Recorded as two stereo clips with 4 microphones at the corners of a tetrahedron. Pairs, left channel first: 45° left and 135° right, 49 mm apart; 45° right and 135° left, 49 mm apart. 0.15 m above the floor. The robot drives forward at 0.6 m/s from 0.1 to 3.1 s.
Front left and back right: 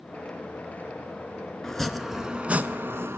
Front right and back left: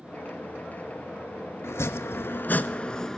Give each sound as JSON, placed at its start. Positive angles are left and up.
{"t": 1.6, "sound": "chopping", "azimuth_deg": -35, "distance_m": 0.8}